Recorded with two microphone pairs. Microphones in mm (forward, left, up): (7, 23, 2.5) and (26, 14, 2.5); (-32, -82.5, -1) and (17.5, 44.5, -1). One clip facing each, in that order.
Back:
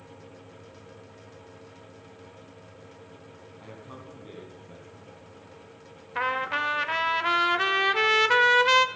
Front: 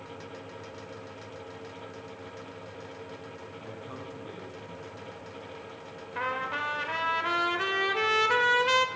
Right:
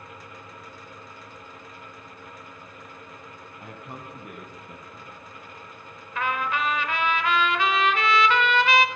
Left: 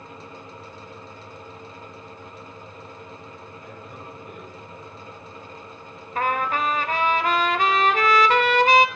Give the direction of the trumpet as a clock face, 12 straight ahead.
9 o'clock.